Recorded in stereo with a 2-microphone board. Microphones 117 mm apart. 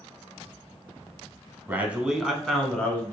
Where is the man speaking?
20° right (ahead or behind), 1.0 m; by 3.1 s 15° left (ahead or behind), 1.5 m.